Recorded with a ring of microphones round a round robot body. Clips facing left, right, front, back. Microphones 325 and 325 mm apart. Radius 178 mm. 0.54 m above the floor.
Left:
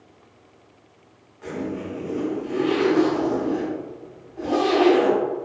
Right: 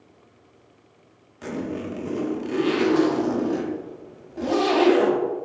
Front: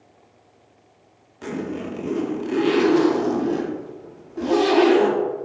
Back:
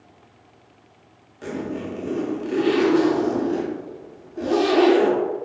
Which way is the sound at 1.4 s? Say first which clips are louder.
Even, even; 75° right.